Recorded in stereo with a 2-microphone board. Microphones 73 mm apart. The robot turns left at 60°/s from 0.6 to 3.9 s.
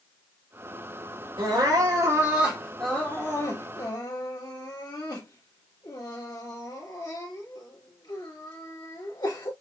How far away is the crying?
About 2.5 m.